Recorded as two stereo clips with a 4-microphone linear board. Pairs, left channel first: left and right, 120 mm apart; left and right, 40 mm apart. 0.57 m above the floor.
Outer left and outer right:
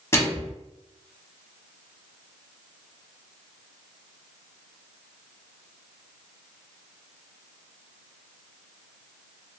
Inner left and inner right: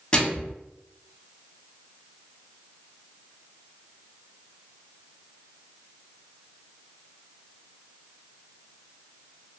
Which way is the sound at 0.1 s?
25° left (ahead or behind).